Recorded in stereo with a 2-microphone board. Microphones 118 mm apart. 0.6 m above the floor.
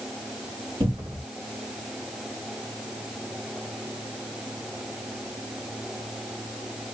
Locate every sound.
0.8 s a cupboard door: 45° right (ahead or behind), 1.8 m